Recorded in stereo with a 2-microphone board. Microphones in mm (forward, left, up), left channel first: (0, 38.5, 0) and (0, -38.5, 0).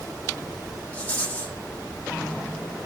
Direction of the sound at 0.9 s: 20° left (ahead or behind).